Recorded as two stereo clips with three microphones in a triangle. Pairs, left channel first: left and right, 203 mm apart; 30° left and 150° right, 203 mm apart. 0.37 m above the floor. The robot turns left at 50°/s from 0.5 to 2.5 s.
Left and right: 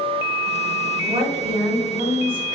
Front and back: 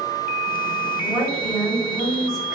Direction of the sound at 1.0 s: 40° right.